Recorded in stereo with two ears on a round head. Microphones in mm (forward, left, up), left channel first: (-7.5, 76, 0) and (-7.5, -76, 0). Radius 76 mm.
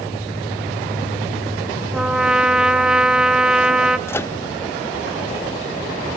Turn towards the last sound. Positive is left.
turn(degrees=15)  # may be behind; listen again after turning